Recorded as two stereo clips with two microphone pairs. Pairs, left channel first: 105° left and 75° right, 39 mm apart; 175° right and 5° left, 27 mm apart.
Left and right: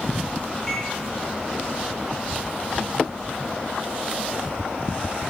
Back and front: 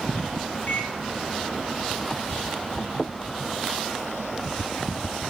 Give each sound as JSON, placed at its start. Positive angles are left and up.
{"t": 0.7, "sound": "a microwave", "azimuth_deg": 180, "distance_m": 8.5}